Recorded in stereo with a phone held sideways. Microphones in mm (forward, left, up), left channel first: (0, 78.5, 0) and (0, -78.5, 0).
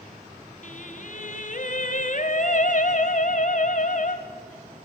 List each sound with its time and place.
0.6 s singing: 55° left (ahead or behind), 1.5 m